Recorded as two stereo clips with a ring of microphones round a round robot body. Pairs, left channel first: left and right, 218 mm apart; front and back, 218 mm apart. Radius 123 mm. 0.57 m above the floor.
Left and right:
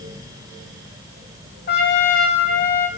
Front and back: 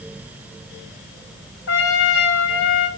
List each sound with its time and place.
1.7 s a trumpet: 40° left, 3 m